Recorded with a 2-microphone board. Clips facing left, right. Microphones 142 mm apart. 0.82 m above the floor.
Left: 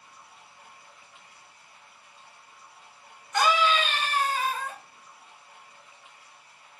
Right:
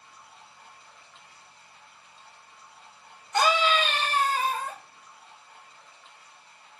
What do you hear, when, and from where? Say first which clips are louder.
0.0 s running water: right 1 dB; 10° left (ahead or behind), 1.3 m
3.3 s a scream: even; 25° right (ahead or behind), 0.9 m